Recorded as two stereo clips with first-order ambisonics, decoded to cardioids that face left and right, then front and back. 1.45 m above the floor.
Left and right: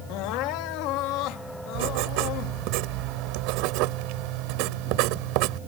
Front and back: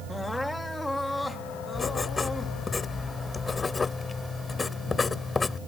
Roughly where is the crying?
Left.